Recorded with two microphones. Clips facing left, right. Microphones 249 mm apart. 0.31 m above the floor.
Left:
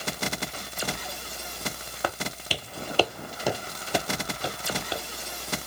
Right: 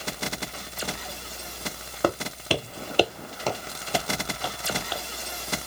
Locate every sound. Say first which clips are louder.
2.0 s footsteps: right 7 dB; 50° right (ahead or behind); by 5.0 s 25° left (ahead or behind)